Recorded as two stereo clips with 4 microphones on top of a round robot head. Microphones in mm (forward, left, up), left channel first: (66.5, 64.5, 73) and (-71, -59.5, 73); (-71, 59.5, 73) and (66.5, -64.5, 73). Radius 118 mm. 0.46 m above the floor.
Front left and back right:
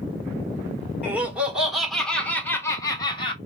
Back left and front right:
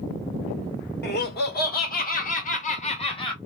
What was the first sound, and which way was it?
Laughter, 145° left.